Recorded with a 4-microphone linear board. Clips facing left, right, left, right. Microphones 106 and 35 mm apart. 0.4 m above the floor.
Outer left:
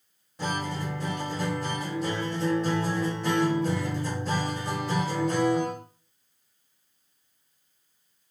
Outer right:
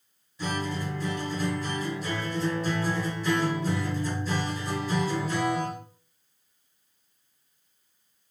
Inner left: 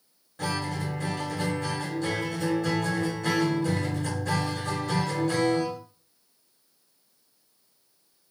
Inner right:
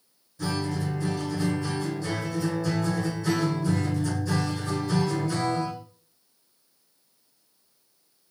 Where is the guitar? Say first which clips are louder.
Even, inner right 1 dB; 60° left (ahead or behind), 2.5 m.